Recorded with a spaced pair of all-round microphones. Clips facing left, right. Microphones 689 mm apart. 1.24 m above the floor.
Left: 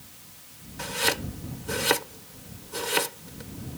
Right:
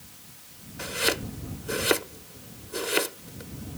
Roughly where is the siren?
No siren in this recording.